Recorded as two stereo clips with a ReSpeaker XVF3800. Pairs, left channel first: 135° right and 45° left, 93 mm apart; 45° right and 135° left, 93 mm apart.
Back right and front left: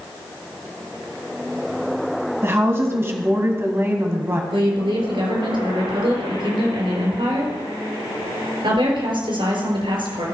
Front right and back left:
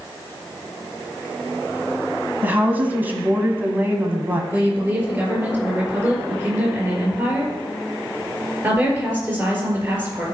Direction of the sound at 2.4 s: 80° left.